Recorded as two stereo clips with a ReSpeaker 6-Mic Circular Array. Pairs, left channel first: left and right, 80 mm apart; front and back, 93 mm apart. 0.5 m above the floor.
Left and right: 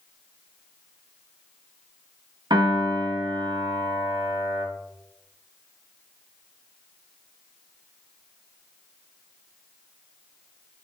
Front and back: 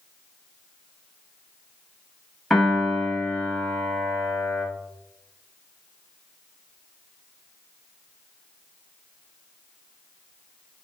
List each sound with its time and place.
2.5 s a piano: 85° right, 0.9 m